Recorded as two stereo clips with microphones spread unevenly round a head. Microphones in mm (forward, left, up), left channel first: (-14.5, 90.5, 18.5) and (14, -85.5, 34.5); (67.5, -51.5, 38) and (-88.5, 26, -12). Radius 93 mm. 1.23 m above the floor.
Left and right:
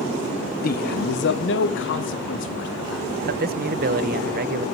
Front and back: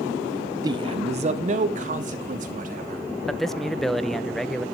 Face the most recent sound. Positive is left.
turn(degrees=-120)